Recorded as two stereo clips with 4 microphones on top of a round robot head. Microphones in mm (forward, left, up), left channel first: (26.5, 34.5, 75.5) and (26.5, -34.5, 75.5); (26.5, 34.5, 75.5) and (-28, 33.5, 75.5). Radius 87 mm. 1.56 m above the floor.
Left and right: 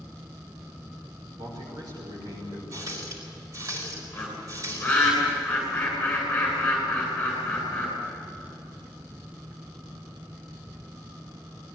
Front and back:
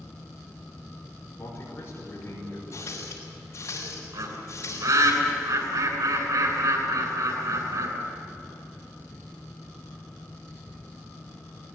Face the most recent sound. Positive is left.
turn(degrees=170)